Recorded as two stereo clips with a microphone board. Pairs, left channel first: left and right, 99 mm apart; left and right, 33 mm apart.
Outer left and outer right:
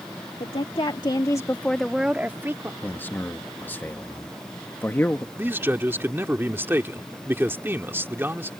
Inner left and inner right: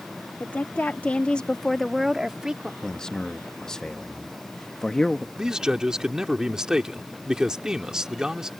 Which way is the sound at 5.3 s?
20° right (ahead or behind).